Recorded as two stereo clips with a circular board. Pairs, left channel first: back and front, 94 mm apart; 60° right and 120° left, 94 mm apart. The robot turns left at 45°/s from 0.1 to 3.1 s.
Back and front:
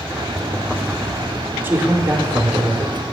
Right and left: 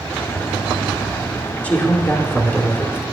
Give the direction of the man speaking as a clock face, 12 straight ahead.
12 o'clock.